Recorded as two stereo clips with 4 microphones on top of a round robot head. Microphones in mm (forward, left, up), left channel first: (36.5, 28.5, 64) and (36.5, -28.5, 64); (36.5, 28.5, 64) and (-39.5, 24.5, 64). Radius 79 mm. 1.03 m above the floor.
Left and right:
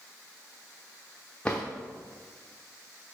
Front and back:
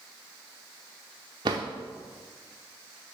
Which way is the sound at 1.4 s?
170° left.